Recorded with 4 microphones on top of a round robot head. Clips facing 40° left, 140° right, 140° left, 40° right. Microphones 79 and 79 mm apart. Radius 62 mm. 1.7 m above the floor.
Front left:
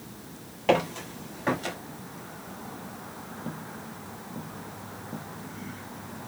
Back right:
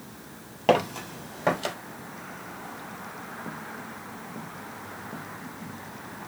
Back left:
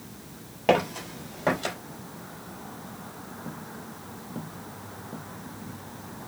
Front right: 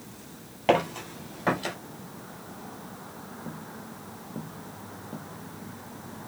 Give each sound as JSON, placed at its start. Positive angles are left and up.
{"t": 0.7, "sound": "footsteps", "azimuth_deg": -140, "distance_m": 1.9}